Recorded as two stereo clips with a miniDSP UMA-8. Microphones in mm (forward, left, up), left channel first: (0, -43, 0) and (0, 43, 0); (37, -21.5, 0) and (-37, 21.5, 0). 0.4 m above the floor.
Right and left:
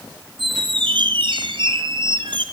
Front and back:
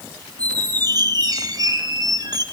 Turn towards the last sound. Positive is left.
turn(degrees=110)